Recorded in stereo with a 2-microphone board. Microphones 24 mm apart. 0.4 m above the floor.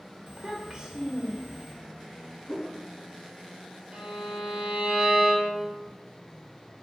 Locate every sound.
0.3 s a child speaking: 35° right (ahead or behind), 0.8 m
2.5 s a whoosh: 10° right (ahead or behind), 0.5 m
3.9 s a violin: 65° right (ahead or behind), 1.4 m